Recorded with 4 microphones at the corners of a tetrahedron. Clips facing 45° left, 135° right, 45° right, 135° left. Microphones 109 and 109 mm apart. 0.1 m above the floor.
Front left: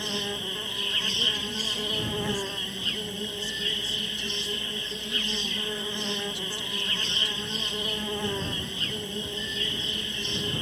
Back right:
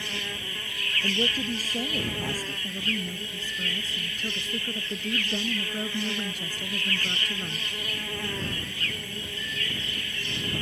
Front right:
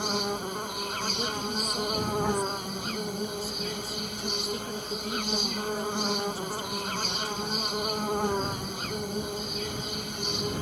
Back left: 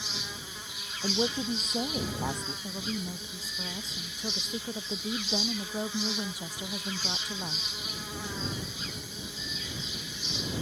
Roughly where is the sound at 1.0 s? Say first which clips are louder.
Back right 9 dB, back left 6 dB; behind.